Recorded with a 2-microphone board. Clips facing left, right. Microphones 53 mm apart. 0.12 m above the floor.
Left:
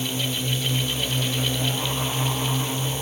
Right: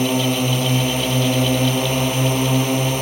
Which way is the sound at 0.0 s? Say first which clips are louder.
Right 9 dB; 65° right (ahead or behind).